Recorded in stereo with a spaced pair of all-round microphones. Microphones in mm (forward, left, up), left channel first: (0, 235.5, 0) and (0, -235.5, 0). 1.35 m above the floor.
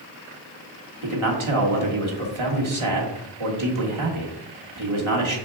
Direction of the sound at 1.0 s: 80° right.